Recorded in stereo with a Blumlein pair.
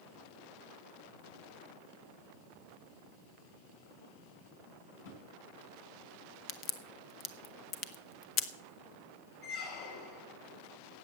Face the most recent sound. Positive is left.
turn(degrees=45)